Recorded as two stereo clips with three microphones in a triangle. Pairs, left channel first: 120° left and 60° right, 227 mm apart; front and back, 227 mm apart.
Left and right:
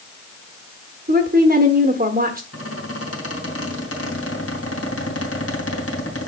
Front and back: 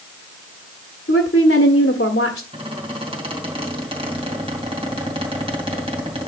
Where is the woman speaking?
25° right, 1.2 m.